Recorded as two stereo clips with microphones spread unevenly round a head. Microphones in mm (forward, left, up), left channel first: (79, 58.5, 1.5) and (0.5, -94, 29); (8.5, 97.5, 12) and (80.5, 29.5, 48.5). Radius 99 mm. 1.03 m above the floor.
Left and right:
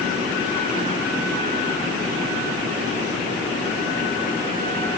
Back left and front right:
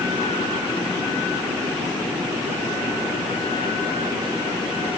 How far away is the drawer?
No drawer in this recording.